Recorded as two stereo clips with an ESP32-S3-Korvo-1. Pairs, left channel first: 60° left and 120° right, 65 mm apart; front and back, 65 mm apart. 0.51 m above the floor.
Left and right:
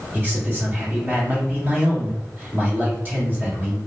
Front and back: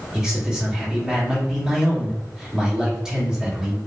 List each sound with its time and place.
0.1 s a man speaking: 110° right, 1.4 m